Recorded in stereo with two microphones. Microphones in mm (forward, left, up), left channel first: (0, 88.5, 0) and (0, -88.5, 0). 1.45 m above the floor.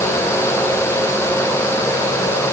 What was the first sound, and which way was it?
Only background noise.